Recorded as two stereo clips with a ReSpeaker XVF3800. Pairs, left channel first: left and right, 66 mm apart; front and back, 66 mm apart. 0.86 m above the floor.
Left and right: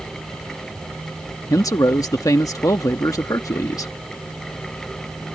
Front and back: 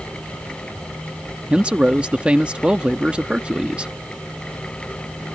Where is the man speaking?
110° left.